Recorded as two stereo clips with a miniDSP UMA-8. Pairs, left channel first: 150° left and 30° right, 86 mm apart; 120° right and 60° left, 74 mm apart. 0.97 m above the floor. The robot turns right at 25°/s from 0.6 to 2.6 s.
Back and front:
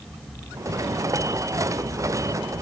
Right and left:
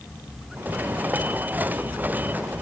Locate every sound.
Only background noise.